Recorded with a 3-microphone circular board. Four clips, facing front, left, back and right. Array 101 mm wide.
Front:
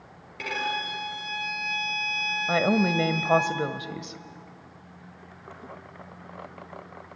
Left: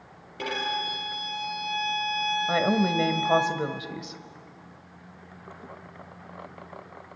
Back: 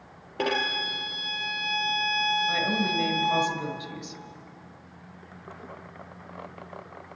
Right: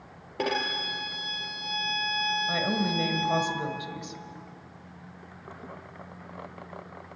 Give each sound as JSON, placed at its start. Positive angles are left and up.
{"t": 0.4, "sound": "a violin", "azimuth_deg": -140, "distance_m": 3.0}
{"t": 2.5, "sound": "a woman speaking", "azimuth_deg": 35, "distance_m": 1.6}